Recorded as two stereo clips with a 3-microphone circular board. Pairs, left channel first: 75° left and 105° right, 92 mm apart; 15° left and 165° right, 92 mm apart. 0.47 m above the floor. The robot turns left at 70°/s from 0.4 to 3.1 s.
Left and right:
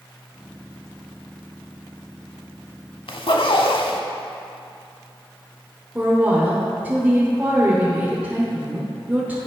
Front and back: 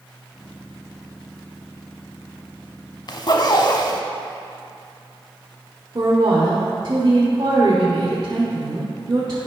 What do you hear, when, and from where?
3.1 s a zipper: 55° left, 0.7 m
6.0 s a woman speaking: 170° right, 1.3 m